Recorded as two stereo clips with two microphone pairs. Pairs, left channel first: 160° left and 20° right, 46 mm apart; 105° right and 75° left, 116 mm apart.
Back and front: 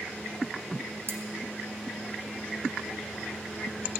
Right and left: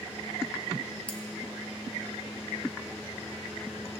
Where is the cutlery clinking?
30° right, 1.1 m.